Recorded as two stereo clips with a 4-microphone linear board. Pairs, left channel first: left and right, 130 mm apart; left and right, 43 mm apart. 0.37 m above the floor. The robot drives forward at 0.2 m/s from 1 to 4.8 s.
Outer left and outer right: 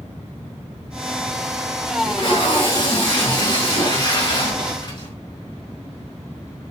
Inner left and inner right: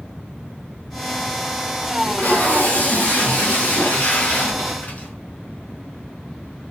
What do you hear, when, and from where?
2.0 s tape being pulled: 40° left (ahead or behind), 4 m; by 5.1 s 35° left (ahead or behind), 4 m